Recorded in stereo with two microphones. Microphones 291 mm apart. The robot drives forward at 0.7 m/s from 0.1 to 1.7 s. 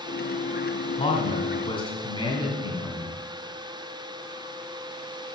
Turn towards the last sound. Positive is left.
turn(degrees=15)  # may be behind; listen again after turning